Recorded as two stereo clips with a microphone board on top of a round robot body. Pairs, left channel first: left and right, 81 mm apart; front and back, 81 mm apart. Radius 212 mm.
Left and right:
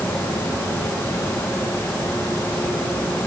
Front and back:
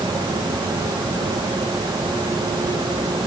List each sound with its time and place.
Only background noise.